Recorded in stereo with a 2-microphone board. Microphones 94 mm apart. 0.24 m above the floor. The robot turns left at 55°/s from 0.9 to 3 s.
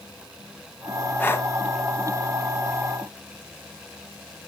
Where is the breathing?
20° left (ahead or behind), 1.0 m; by 1.5 s 30° left (ahead or behind), 1.0 m.